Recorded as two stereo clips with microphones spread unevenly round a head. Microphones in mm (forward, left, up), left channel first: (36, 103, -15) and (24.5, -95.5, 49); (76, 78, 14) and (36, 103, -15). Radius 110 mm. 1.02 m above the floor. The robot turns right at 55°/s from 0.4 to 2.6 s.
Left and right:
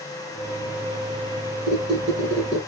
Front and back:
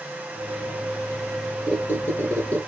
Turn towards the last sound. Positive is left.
turn(degrees=-10)